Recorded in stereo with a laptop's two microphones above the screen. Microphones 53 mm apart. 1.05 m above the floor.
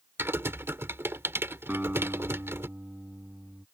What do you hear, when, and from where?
0.2 s typing on a keyboard: 50° right (ahead or behind)
1.7 s a guitar: 35° right (ahead or behind)